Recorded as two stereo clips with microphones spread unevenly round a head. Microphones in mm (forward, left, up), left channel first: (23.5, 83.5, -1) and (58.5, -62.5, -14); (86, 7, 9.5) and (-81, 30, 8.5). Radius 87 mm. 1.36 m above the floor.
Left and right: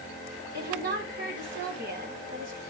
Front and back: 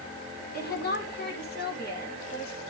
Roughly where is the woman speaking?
Ahead right.